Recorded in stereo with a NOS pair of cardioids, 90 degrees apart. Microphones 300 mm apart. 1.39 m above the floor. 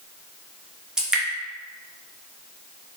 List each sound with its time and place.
1.0 s dripping: straight ahead, 1.0 m